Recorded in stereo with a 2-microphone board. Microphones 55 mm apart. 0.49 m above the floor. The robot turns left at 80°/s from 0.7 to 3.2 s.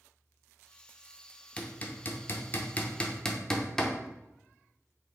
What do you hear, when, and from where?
1.6 s hammering: 20° left (ahead or behind), 0.5 m; by 4.0 s 10° left (ahead or behind), 0.5 m